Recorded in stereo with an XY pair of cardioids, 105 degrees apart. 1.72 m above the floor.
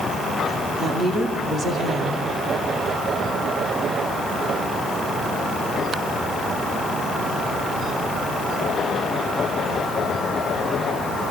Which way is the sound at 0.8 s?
60° right.